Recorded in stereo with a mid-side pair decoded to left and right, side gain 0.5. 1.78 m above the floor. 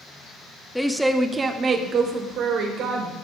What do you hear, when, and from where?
0.8 s a woman speaking: straight ahead, 0.9 m; by 3.1 s 80° right, 2 m